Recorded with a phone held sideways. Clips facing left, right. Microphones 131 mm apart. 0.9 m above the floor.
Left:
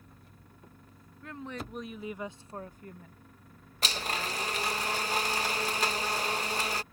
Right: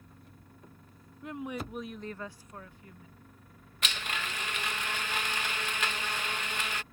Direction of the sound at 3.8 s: 35° left (ahead or behind).